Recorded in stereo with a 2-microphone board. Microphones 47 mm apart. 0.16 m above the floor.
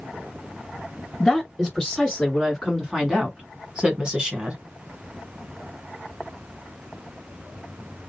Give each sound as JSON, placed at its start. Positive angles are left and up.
{"t": 1.2, "sound": "a woman speaking", "side_deg": -5, "distance_m": 1.9}